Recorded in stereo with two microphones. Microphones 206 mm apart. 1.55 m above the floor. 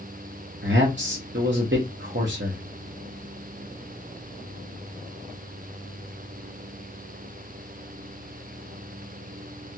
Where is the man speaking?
65° right (ahead or behind), 0.8 m.